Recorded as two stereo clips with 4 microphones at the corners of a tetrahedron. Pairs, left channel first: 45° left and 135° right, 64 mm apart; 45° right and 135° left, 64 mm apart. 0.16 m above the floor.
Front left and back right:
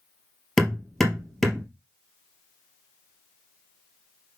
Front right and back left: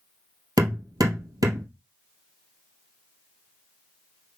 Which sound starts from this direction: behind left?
Hammering, at 0.6 s.